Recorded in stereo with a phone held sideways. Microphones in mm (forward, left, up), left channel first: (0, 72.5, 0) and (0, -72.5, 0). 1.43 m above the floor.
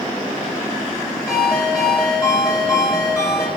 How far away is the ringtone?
About 3.5 m.